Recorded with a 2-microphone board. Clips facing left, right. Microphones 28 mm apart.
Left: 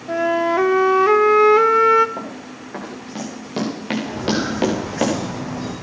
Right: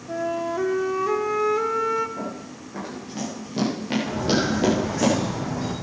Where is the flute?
50° left (ahead or behind), 0.6 m.